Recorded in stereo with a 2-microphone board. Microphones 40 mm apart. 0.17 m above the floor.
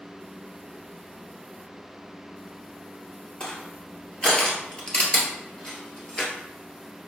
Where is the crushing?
25° left (ahead or behind), 1.6 m.